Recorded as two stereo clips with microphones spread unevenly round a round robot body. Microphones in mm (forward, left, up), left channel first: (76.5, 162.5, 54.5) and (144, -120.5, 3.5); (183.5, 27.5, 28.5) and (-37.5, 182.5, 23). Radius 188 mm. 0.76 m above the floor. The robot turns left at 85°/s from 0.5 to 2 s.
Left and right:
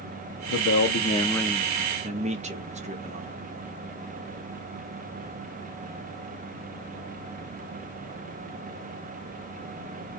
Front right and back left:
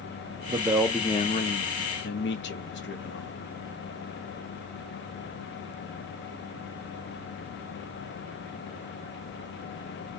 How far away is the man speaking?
About 0.7 m.